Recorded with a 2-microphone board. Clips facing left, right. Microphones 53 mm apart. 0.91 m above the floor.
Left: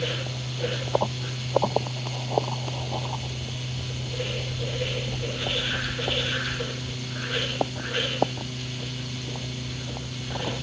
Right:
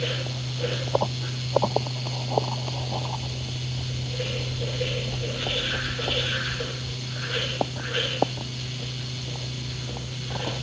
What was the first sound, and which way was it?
Only background noise.